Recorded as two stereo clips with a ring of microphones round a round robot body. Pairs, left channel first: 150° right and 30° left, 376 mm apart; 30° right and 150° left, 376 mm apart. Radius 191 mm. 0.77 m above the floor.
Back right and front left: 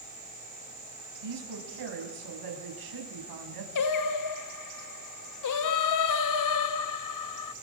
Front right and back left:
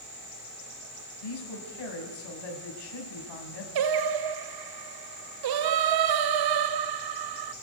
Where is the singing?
175° left, 0.8 m.